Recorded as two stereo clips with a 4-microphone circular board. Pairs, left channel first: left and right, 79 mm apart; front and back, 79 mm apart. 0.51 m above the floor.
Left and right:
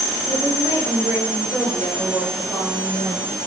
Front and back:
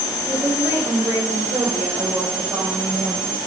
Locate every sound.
0.3 s a woman speaking: 115° right, 2.5 m; by 3.4 s 120° left, 3 m